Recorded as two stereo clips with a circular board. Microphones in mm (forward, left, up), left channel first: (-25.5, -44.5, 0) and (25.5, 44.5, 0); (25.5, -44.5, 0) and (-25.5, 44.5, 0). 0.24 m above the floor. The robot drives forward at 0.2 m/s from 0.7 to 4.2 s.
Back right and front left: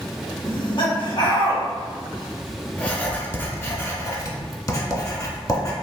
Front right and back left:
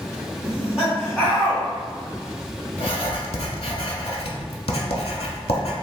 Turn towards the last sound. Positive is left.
turn(degrees=-65)